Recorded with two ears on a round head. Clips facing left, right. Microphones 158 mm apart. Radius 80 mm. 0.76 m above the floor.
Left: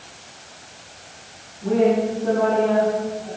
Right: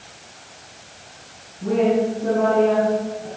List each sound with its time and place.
1.6 s a woman speaking: 40° right (ahead or behind), 8 m